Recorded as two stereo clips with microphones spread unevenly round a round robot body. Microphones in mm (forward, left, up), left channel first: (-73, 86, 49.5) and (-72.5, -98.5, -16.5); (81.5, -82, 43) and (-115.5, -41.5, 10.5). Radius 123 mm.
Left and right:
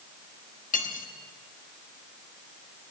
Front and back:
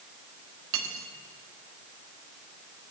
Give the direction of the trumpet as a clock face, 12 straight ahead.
I don't hear a trumpet.